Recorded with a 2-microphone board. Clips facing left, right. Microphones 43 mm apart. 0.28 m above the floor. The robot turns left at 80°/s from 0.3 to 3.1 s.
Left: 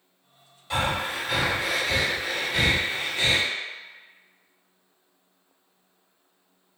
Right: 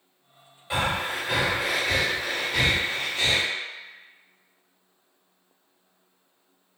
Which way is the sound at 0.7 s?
25° right (ahead or behind).